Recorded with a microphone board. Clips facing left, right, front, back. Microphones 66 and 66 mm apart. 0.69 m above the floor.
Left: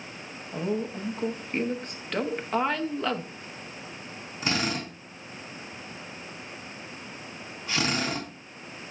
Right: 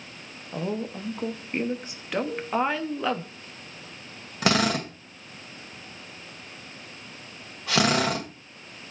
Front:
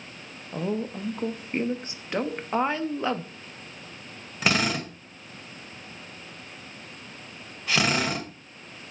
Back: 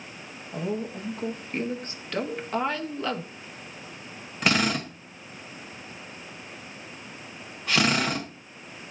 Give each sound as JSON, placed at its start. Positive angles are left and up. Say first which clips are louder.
{"t": 0.5, "sound": "a woman speaking", "louder": "left 1 dB, front 1 dB", "azimuth_deg": -20, "distance_m": 0.9}
{"t": 2.3, "sound": "a cowbell", "louder": "even, front 1 dB", "azimuth_deg": 50, "distance_m": 3.0}
{"t": 4.4, "sound": "a drill", "louder": "right 6 dB, back 1 dB", "azimuth_deg": -90, "distance_m": 1.8}